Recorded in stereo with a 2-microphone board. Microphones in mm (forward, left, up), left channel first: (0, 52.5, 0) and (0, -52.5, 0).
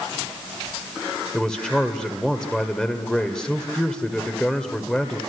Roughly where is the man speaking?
Centre.